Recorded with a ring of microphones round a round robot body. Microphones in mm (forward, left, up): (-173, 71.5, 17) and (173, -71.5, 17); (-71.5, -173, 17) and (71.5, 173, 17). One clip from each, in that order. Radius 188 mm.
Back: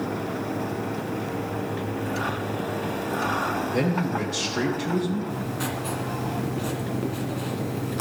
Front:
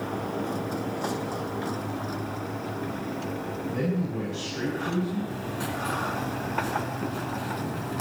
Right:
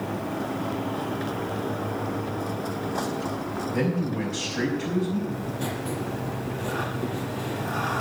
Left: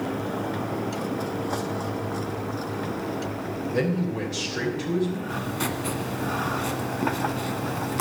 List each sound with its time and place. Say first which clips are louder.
3.7 s a man speaking: back 5 dB, left 2 dB; 115° left, 3 m
5.3 s writing: back 2 dB, left 3 dB; 75° left, 1.6 m